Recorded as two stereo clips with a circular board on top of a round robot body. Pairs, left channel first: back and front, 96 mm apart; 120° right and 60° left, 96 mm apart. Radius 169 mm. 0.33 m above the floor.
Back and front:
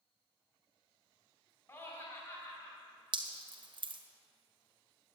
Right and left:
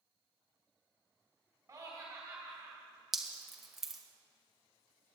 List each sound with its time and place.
1.7 s laughter: 120° left, 3 m; by 2.8 s 130° left, 3.5 m
3.1 s dripping: 30° right, 1.8 m